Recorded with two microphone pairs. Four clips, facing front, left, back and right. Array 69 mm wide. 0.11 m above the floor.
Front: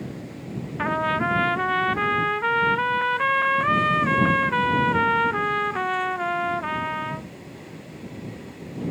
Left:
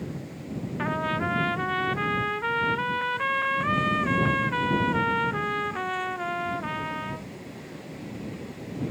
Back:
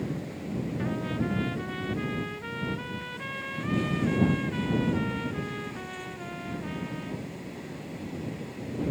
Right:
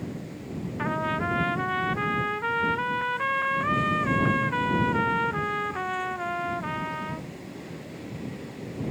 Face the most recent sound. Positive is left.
turn(degrees=-5)